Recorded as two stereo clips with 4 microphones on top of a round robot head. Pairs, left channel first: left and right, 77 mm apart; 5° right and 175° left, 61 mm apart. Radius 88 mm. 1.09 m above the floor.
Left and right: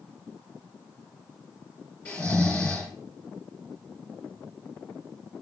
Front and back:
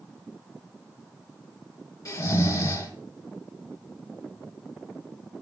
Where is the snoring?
25° left, 3 m.